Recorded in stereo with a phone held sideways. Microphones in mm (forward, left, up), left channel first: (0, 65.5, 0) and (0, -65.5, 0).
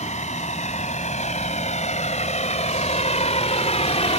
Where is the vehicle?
75° left (ahead or behind); by 4.2 s 65° left (ahead or behind).